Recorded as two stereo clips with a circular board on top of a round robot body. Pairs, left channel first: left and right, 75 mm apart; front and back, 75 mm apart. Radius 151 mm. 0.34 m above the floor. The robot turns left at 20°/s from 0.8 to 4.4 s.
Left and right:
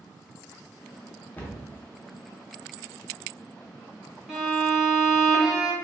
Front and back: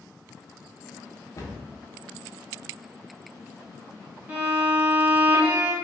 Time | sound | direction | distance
1.4 | a cupboard door | 30° left | 0.9 m
4.3 | a violin | 175° right | 1.5 m